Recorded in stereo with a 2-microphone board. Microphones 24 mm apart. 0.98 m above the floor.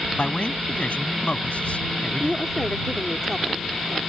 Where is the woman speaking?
15° left (ahead or behind).